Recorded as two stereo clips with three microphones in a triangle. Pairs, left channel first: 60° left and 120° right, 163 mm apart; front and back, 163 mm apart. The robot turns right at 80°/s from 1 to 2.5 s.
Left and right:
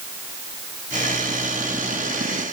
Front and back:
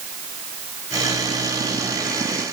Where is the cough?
No cough in this recording.